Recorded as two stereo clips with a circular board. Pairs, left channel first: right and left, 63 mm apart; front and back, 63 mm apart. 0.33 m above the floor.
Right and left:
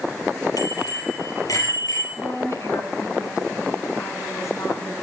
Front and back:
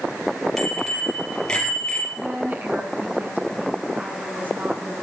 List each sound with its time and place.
0.6 s a bicycle bell: 85° right, 7 m; by 2.1 s 75° right, 5.5 m
2.2 s a woman speaking: 120° right, 3.5 m